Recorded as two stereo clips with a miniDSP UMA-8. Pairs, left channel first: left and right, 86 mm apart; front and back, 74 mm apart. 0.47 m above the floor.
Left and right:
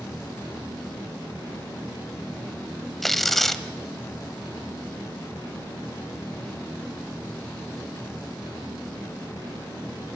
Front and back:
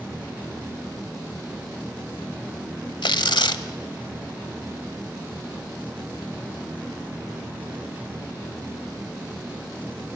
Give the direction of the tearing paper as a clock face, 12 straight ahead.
12 o'clock.